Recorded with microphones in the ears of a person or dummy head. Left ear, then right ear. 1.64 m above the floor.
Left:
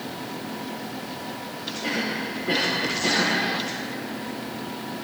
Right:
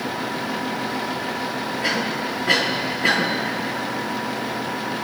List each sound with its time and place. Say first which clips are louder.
1.8 s a cough: right 3 dB; 65° right (ahead or behind), 5 m